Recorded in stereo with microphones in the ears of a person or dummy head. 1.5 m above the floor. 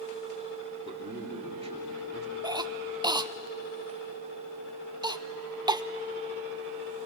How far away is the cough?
About 0.6 m.